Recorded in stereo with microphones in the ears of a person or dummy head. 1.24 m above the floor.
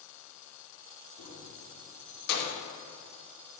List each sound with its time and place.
1.2 s keys jangling: 70° left (ahead or behind), 2.5 m; by 2.6 s 55° left (ahead or behind), 3 m